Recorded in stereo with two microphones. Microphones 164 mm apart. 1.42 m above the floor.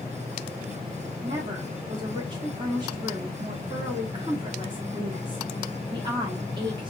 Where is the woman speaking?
30° right (ahead or behind), 0.9 m.